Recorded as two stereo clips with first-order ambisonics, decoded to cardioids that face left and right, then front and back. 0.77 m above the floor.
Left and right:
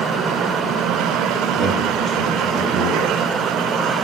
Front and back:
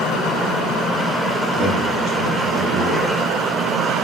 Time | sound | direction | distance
1.5 | a man speaking | straight behind | 1.7 m